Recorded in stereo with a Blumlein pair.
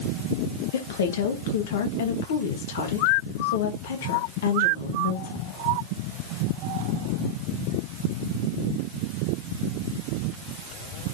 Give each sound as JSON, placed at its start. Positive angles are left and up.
{"t": 0.7, "sound": "a woman speaking", "azimuth_deg": 60, "distance_m": 2.5}